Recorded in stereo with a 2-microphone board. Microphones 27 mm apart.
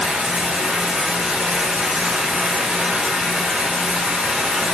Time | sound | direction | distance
0.0 | running water | 50° right (ahead or behind) | 0.8 m